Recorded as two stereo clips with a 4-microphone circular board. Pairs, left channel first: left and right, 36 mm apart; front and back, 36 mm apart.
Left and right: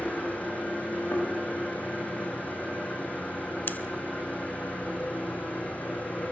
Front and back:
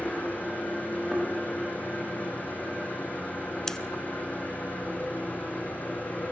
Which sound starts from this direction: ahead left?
An engine running, at 0.0 s.